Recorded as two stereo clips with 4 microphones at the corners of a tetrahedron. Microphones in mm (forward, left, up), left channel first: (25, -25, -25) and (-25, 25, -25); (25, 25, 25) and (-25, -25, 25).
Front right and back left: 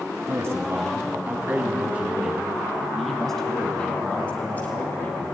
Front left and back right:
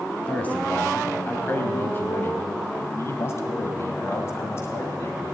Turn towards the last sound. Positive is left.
turn(degrees=5)